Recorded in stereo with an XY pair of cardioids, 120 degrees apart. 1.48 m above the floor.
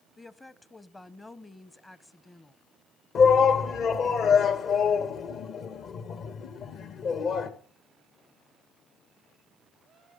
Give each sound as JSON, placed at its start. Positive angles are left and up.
{"t": 0.2, "sound": "a woman speaking", "azimuth_deg": 15, "distance_m": 0.9}
{"t": 3.1, "sound": "a shout", "azimuth_deg": 55, "distance_m": 2.0}